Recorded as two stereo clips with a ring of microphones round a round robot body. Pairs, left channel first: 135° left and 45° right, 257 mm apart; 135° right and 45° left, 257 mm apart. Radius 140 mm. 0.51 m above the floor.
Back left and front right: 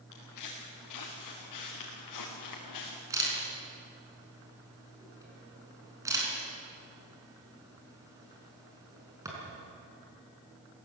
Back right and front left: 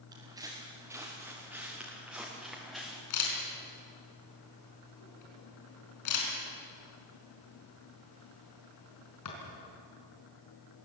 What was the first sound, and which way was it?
Footsteps, 120° left.